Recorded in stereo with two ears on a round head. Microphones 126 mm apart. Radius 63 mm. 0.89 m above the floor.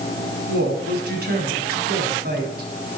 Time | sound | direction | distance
0.5 | a woman speaking | 75° right (ahead or behind) | 6.5 m